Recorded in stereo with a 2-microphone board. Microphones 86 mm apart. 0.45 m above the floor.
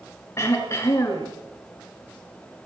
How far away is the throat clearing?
About 4 m.